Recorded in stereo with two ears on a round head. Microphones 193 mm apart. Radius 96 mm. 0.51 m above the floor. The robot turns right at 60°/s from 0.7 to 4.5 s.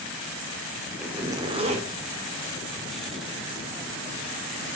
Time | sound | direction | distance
1.0 | a zipper | 175° right | 1.6 m